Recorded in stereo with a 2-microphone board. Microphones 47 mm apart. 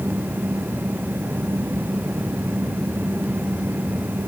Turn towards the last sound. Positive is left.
No sound to turn to.